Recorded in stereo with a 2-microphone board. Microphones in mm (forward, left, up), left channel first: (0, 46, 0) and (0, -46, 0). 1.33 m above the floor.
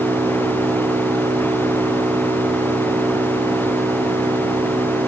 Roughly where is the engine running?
Right.